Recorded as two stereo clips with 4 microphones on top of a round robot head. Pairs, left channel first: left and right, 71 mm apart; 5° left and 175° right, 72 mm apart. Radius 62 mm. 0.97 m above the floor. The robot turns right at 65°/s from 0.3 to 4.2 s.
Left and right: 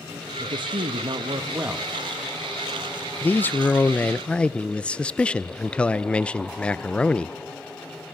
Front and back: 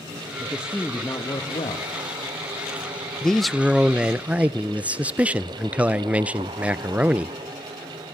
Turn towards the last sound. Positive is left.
turn(degrees=140)